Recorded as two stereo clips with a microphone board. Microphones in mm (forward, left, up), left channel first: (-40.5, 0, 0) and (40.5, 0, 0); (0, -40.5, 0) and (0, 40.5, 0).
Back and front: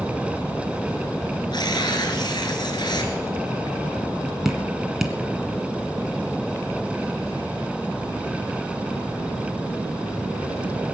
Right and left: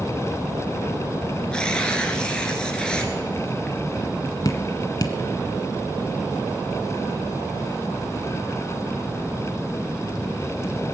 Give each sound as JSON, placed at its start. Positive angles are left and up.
{"t": 1.5, "sound": "tearing paper", "azimuth_deg": -165, "distance_m": 2.0}
{"t": 4.5, "sound": "dripping", "azimuth_deg": -85, "distance_m": 1.4}